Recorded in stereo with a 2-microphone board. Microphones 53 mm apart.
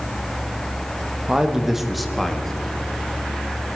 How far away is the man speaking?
About 1.0 m.